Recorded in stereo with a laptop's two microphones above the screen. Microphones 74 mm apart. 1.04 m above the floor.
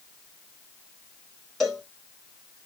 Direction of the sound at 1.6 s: Centre (ahead or behind).